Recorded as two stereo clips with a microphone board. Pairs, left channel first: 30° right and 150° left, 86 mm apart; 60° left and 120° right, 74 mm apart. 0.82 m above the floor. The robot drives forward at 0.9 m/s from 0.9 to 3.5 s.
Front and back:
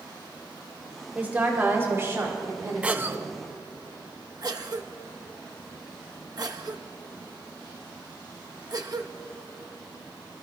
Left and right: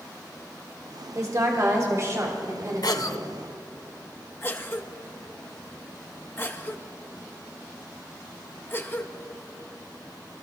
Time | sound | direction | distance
1.1 | a woman speaking | 145° right | 1.8 m
2.8 | a cough | 75° left | 0.9 m